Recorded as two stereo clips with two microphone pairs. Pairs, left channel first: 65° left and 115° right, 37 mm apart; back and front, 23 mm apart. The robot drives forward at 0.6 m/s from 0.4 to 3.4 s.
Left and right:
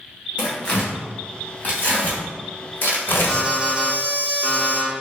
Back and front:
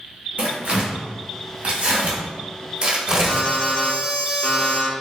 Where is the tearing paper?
15° left, 2.0 m; by 3.5 s 85° left, 0.6 m.